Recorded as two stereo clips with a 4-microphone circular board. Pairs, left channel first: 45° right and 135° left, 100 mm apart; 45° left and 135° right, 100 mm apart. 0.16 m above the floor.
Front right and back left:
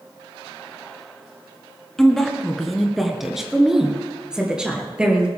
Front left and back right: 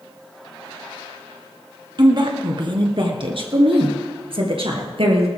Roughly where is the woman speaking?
Behind right.